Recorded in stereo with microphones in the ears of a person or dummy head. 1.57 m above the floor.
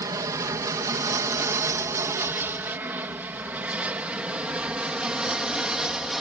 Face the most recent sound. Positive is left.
turn(degrees=-5)  # may be behind; listen again after turning